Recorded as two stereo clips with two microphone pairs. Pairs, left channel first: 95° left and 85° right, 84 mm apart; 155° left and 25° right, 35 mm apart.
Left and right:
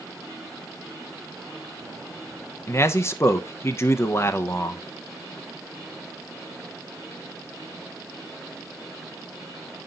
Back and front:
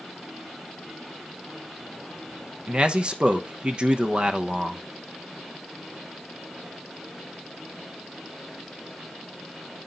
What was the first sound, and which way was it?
A man speaking, 40° left.